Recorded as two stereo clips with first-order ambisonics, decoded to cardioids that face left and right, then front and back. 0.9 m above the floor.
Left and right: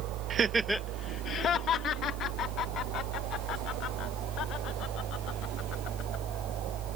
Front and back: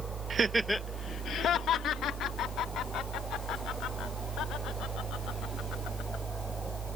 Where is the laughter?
130° right; by 6.2 s 45° left.